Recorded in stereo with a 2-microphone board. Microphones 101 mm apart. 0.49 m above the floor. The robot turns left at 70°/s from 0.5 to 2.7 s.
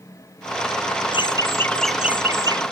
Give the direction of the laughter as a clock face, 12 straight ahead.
10 o'clock.